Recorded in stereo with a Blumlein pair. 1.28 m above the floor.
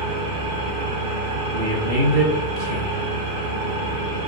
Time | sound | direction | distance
0.0 | an engine running | 40° right | 0.7 m
1.5 | a man speaking | 45° right | 0.8 m